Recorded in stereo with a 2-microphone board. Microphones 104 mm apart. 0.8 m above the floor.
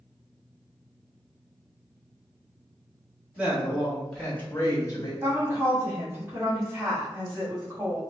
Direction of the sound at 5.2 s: 20° right (ahead or behind).